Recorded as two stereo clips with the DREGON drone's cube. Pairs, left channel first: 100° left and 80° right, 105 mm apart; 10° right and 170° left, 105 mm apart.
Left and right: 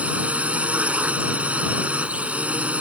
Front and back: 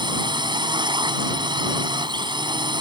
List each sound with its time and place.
0.0 s a drone: 155° right